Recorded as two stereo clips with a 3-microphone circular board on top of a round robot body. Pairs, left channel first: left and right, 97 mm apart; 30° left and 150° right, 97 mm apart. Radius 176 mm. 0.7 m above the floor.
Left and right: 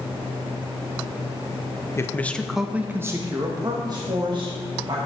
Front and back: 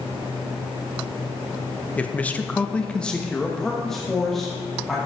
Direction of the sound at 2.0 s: 90° left.